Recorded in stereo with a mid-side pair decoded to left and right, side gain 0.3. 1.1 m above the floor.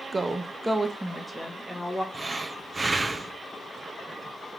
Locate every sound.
0.1 s a woman speaking: 45° right, 0.5 m; by 2.0 s 10° right, 1.6 m
2.1 s breathing: 40° right, 0.5 m